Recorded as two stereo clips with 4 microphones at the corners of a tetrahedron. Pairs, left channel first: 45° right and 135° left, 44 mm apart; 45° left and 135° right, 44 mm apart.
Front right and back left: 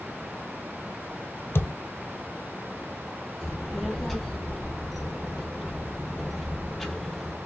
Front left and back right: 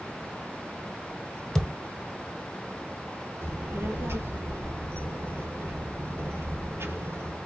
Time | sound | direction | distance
1.6 | a thud | 35° right | 1.1 m
3.4 | a child speaking | 130° right | 2.0 m